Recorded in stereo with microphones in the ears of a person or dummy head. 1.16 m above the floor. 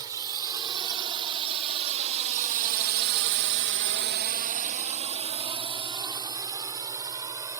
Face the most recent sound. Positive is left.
turn(degrees=-10)  # may be behind; listen again after turning